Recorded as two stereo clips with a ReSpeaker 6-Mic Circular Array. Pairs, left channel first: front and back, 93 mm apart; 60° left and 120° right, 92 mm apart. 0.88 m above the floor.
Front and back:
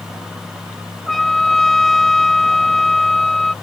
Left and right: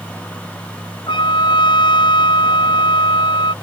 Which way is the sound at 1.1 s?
90° left.